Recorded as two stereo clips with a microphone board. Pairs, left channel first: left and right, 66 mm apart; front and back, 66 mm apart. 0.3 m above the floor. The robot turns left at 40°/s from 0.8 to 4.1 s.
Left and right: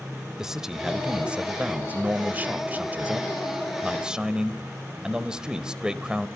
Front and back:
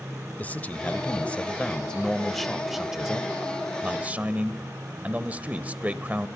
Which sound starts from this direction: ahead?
A man speaking, at 0.4 s.